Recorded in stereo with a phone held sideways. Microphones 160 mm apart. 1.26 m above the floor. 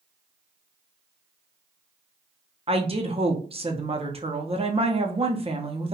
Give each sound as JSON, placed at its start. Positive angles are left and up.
{"t": 2.7, "sound": "a woman speaking", "side_deg": -40, "distance_m": 0.6}